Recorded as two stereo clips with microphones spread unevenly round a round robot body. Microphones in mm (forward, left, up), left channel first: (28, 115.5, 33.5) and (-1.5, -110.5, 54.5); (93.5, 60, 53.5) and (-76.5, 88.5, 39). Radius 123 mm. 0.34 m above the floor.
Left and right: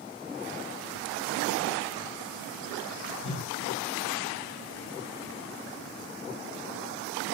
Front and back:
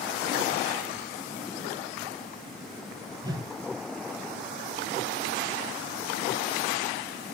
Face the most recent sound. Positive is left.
turn(degrees=105)